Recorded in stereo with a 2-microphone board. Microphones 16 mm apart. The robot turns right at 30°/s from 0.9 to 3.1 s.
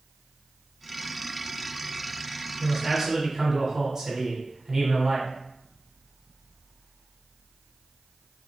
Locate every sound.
2.6 s a man speaking: 40° right (ahead or behind), 1.4 m; by 5.3 s 35° right (ahead or behind), 1.4 m